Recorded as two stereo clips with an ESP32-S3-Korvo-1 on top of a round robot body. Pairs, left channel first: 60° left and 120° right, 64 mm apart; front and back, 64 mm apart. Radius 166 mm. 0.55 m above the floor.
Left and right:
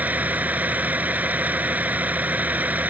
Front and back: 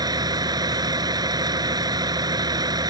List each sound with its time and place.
0.0 s a vehicle: 175° left